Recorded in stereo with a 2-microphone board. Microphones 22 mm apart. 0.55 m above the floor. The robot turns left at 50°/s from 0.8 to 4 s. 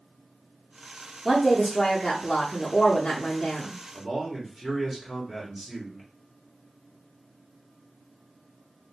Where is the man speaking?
5° left (ahead or behind), 1.0 m.